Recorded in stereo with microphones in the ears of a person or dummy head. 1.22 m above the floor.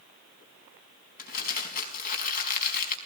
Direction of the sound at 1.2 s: 50° left (ahead or behind).